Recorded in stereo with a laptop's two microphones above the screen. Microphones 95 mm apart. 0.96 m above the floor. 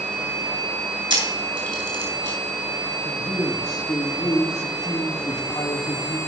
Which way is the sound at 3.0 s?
45° left (ahead or behind).